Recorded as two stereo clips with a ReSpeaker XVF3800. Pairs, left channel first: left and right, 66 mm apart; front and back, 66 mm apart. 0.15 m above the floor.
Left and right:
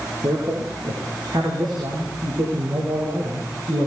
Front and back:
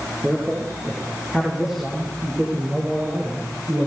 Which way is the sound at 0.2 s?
100° right.